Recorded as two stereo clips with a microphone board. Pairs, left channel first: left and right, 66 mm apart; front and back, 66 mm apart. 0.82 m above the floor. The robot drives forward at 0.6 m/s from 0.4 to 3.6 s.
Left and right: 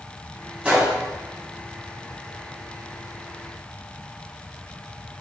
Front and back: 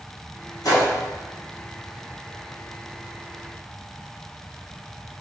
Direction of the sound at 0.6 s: 20° right.